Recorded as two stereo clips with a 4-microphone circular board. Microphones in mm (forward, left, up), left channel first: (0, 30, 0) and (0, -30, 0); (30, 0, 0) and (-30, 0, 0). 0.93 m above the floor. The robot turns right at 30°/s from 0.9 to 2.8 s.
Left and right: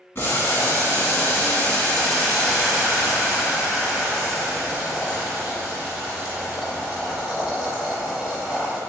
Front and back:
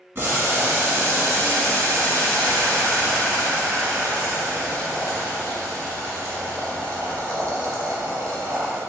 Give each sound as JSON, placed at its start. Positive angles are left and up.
{"t": 0.1, "sound": "boiling", "azimuth_deg": 130, "distance_m": 1.4}